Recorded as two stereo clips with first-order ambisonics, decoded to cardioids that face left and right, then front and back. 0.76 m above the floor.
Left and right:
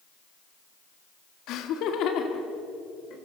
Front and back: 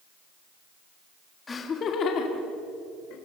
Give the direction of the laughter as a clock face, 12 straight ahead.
10 o'clock.